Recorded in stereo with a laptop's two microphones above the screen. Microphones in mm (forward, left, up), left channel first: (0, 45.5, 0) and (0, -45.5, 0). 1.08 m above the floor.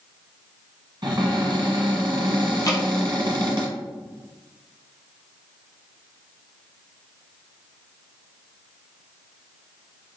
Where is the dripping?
40° left (ahead or behind), 0.7 m.